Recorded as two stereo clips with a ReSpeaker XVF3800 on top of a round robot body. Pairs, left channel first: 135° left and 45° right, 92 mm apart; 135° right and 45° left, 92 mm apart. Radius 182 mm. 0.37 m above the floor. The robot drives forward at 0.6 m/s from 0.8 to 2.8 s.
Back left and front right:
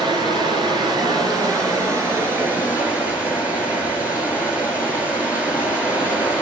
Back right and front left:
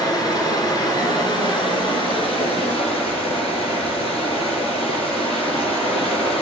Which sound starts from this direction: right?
Running water, at 0.0 s.